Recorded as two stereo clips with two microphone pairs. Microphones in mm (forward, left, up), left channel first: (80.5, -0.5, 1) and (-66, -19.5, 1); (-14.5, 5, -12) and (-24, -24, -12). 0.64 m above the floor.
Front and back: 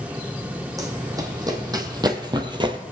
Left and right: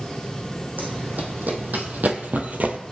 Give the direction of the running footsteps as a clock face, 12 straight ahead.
4 o'clock.